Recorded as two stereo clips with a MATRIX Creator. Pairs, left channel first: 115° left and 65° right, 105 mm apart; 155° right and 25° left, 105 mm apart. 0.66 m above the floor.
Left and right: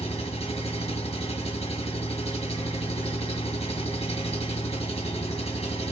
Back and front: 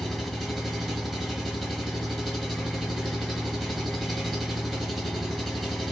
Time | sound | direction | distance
0.0 | an engine running | 110° left | 1.1 m